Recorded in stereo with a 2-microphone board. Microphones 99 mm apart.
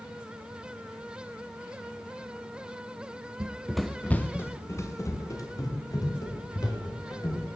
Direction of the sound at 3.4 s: 30° right (ahead or behind).